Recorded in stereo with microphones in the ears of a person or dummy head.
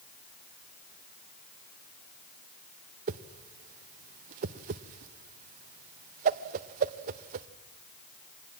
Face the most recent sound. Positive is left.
turn(degrees=-50)  # may be behind; listen again after turning